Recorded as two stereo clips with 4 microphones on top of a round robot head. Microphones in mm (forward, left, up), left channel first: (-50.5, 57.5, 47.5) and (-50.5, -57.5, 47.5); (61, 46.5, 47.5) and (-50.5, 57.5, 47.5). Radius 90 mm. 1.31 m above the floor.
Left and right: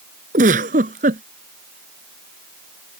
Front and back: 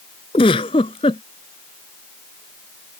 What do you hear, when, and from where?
0.3 s a giggle: 65° right